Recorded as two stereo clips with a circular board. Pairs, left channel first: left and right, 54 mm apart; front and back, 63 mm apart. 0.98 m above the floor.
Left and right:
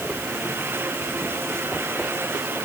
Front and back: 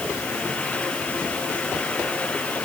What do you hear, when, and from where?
Only background noise.